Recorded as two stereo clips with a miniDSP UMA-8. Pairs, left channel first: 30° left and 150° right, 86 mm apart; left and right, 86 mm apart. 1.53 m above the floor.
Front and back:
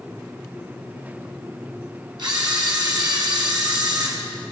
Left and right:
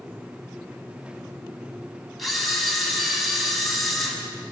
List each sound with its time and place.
2.2 s a camera shutter: straight behind, 5 m